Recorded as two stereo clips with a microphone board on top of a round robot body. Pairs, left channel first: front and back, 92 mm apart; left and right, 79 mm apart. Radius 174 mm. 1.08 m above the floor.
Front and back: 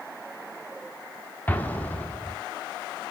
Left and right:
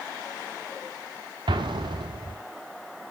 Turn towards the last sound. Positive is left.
turn(degrees=-70)